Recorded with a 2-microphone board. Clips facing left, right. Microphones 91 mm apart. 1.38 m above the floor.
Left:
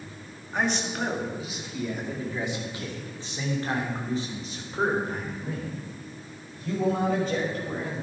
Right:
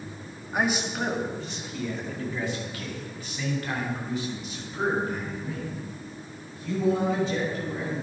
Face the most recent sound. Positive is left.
turn(degrees=50)  # may be behind; listen again after turning